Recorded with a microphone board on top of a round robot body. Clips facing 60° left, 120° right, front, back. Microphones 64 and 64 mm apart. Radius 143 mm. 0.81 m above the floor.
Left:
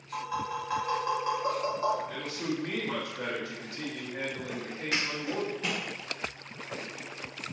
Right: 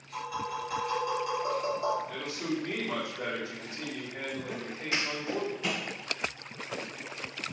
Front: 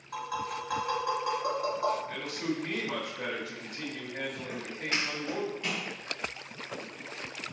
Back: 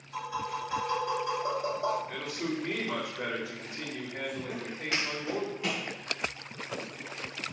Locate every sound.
0.1 s tapping: 15° left, 1.7 m
2.1 s a man speaking: 90° left, 1.6 m
4.5 s footsteps: 10° left, 0.8 m; by 5.8 s 110° left, 1.5 m